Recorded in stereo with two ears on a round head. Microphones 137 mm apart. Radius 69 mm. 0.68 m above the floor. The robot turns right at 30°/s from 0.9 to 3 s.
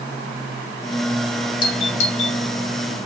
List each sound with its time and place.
1.6 s a doorbell: 35° left (ahead or behind), 2 m; by 2.4 s 50° left (ahead or behind), 2 m